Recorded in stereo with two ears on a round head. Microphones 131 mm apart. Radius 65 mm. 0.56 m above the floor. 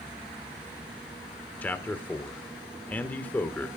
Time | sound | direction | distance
1.6 | a man speaking | 10° left (ahead or behind) | 1.3 m